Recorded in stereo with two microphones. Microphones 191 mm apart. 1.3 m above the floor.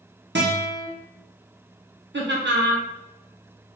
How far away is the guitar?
About 1.2 m.